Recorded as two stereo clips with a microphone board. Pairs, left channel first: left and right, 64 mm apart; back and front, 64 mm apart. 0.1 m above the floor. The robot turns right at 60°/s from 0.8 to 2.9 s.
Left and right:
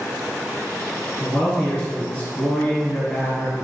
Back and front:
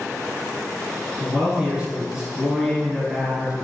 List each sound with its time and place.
1.2 s a man speaking: 15° left, 1.3 m; by 3.6 s 115° left, 1.3 m